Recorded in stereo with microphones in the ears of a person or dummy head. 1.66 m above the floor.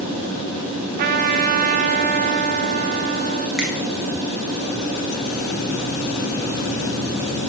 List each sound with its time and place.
1.0 s a trumpet: 45° right (ahead or behind), 0.6 m
3.6 s a finger snap: 5° right (ahead or behind), 1.2 m